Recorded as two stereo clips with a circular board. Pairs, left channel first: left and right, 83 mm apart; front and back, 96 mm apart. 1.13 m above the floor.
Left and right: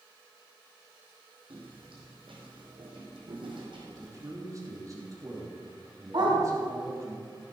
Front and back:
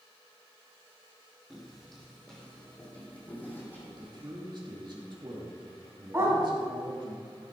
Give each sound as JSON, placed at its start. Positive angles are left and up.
{"t": 1.5, "sound": "footsteps", "azimuth_deg": -90, "distance_m": 3.5}
{"t": 3.9, "sound": "a man speaking", "azimuth_deg": -140, "distance_m": 2.5}
{"t": 6.1, "sound": "a dog barking", "azimuth_deg": -115, "distance_m": 3.5}